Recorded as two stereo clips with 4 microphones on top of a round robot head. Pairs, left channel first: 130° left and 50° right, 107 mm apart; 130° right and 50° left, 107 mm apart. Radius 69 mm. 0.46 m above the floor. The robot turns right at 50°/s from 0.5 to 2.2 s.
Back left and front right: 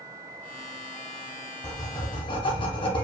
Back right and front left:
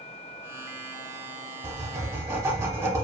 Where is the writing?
80° left, 0.8 m; by 3.0 s 110° left, 0.8 m.